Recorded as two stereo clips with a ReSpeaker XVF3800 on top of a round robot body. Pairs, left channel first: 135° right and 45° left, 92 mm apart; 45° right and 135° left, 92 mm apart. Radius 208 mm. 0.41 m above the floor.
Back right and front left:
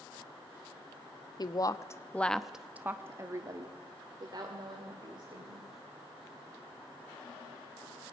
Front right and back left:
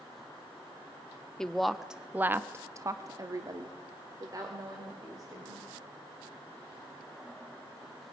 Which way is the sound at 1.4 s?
125° right.